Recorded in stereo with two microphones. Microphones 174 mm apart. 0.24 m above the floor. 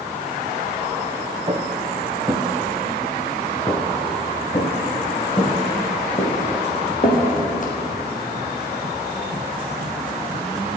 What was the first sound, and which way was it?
Footsteps, 25° right (ahead or behind).